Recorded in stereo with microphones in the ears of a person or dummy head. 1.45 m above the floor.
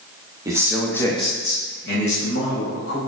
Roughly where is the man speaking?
Right.